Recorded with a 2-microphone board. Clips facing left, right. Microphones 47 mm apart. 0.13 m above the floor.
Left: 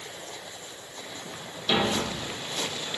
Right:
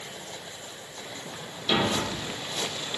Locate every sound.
1.7 s a thud: centre (ahead or behind), 6 m